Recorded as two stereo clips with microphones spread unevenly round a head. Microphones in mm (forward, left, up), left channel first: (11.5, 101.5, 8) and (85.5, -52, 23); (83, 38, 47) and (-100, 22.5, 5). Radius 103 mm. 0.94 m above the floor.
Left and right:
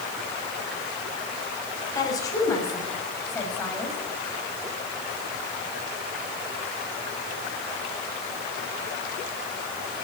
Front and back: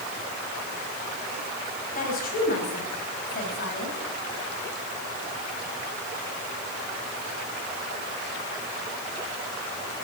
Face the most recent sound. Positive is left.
turn(degrees=40)